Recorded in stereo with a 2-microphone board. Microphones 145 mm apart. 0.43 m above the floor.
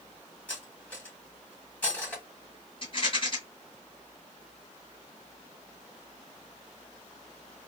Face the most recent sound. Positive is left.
turn(degrees=40)  # may be behind; listen again after turning